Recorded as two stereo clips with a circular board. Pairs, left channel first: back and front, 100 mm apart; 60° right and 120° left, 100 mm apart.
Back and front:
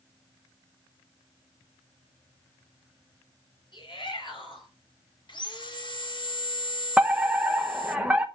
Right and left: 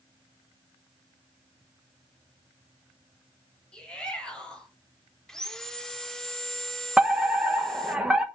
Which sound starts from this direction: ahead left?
A fire alarm, at 7.0 s.